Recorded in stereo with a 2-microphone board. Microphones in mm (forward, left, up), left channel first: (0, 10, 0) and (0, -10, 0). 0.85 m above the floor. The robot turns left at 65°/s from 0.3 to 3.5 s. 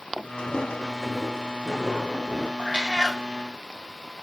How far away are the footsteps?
About 3.5 m.